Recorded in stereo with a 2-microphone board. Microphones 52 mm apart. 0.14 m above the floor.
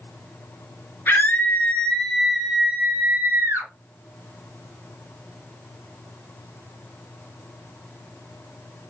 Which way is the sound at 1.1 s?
45° left (ahead or behind).